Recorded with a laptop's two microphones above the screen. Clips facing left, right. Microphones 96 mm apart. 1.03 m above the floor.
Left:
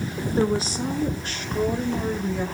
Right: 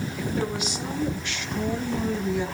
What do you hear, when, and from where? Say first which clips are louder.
0.2 s a woman speaking: left 7 dB; 30° left (ahead or behind), 2.5 m; by 2.5 s 45° left (ahead or behind), 4 m